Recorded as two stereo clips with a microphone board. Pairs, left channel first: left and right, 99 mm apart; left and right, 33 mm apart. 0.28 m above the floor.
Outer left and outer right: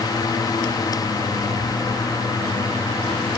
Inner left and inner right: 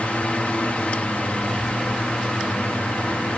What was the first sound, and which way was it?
Only background noise.